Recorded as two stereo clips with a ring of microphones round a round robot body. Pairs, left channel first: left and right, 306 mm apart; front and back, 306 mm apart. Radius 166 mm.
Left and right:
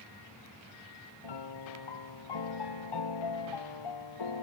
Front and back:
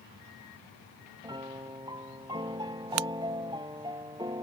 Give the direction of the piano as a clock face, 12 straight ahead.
9 o'clock.